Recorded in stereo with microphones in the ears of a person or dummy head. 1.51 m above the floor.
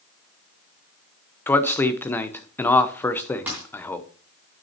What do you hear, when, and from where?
1.5 s a man speaking: 15° left (ahead or behind), 0.8 m
3.5 s a dropped coin: 5° right (ahead or behind), 2.5 m